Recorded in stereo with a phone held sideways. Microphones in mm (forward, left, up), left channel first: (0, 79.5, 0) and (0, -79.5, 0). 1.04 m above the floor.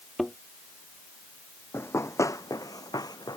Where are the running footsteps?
15° left (ahead or behind); by 3.4 s 25° left (ahead or behind).